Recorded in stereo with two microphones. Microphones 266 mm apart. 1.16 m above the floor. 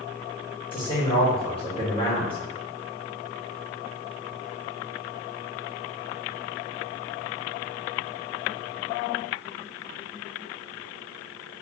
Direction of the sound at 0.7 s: 20° left (ahead or behind).